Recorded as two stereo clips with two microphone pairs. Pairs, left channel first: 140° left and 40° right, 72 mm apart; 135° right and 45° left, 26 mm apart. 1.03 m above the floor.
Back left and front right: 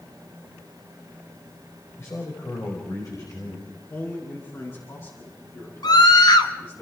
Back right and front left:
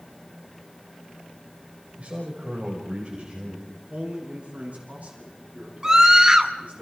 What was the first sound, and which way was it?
A man speaking, 90° left.